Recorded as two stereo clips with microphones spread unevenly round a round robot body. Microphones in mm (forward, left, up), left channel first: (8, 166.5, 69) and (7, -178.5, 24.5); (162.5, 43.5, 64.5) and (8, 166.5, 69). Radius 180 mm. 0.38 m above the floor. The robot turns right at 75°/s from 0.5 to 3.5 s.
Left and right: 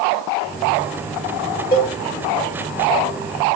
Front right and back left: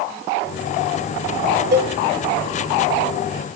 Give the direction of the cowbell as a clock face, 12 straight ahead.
7 o'clock.